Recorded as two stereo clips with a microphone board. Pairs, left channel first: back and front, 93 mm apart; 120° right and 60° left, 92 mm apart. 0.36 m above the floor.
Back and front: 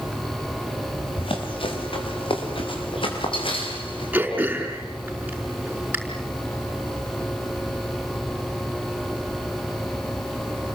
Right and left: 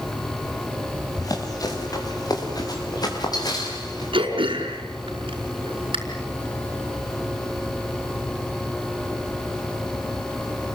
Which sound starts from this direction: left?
Throat clearing, at 4.1 s.